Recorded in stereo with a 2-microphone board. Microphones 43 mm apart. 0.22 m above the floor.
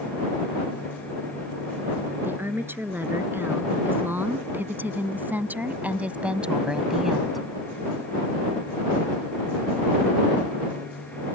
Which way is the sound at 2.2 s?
55° right (ahead or behind).